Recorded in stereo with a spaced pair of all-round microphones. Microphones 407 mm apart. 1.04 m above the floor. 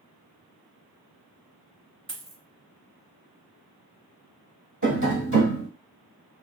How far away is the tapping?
About 0.9 m.